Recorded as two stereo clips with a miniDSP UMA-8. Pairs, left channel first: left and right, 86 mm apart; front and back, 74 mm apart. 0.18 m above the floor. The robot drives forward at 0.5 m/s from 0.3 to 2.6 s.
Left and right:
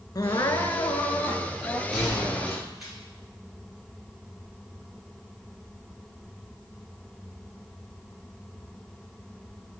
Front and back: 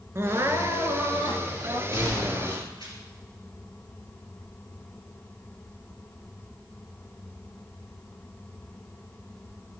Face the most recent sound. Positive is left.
turn(degrees=-175)